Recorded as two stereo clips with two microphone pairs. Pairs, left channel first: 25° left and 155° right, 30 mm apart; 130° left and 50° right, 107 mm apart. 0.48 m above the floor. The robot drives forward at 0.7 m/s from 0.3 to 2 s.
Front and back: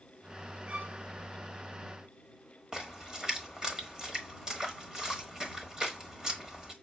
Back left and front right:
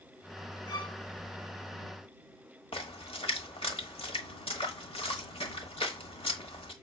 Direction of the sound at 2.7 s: 140° left.